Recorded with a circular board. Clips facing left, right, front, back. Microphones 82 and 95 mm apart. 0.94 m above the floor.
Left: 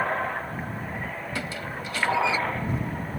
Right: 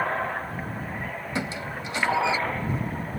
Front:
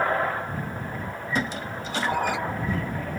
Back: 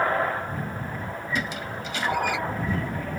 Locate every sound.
1.4 s a squeak: 30° right